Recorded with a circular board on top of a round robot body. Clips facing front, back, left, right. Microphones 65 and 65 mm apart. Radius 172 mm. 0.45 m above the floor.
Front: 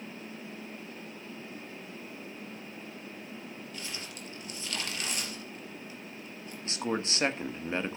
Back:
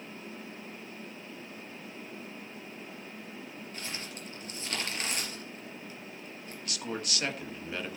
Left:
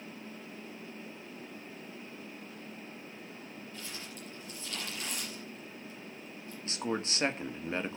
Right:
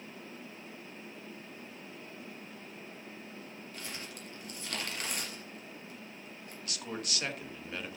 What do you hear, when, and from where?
3.7 s crumpling: 125° right, 4 m
6.7 s a man speaking: 45° left, 1.4 m